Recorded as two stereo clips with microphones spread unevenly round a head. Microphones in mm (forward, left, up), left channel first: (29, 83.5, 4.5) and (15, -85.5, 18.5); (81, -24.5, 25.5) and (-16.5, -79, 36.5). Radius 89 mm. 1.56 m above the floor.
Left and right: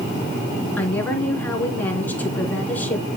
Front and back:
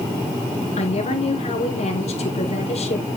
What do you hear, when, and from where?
0.8 s a woman speaking: 5° left, 3.5 m